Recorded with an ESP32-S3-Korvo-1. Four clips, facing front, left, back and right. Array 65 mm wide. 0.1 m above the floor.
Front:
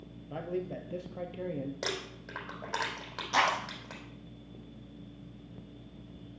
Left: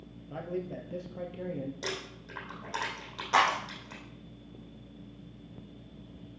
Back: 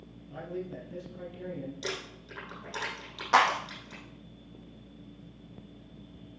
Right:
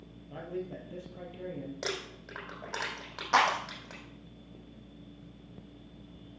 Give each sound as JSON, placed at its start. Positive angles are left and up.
{"t": 0.3, "sound": "a man speaking", "azimuth_deg": 20, "distance_m": 2.5}
{"t": 1.8, "sound": "crumpling", "azimuth_deg": -30, "distance_m": 5.0}
{"t": 3.3, "sound": "a clap", "azimuth_deg": -160, "distance_m": 3.5}